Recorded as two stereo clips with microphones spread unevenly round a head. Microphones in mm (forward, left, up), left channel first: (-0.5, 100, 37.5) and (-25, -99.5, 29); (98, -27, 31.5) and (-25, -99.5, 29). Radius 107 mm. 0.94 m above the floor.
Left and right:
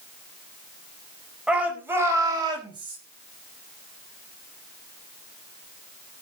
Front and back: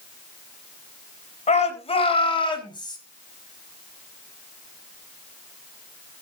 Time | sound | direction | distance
1.5 | a shout | 10° right | 4.5 m